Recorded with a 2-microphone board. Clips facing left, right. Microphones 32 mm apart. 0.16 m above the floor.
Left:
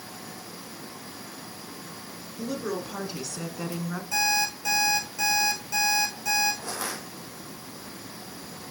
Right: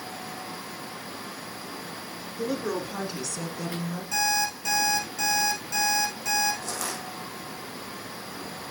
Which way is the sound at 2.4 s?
15° right (ahead or behind).